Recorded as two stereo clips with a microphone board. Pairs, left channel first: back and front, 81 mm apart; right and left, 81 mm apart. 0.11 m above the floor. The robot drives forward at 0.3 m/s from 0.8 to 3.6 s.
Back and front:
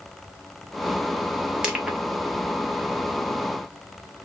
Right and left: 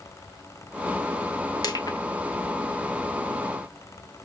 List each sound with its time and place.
1.6 s crushing: 75° right, 1.1 m; by 2.0 s 85° right, 1.1 m